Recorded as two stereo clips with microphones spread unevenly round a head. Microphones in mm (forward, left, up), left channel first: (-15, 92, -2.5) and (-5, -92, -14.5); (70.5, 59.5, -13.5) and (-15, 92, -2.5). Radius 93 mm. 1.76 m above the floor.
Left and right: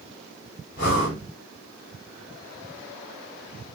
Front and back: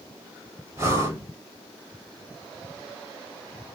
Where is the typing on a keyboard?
No typing on a keyboard in this recording.